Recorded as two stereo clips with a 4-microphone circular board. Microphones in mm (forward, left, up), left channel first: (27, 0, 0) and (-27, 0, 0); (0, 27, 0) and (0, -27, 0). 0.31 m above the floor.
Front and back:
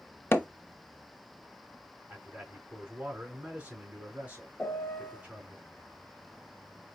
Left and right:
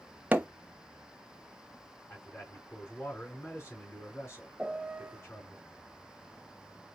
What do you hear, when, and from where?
0.3 s hammering: 35° right, 0.7 m
2.1 s a man speaking: 120° left, 2.5 m
4.6 s a piano: 30° right, 0.8 m